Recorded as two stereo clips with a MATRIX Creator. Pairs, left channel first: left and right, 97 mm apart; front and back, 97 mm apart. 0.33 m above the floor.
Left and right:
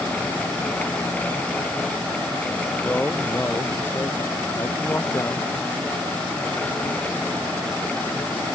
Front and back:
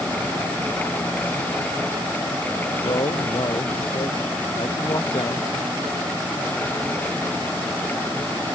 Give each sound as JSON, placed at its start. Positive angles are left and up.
{"t": 2.8, "sound": "a man speaking", "azimuth_deg": 20}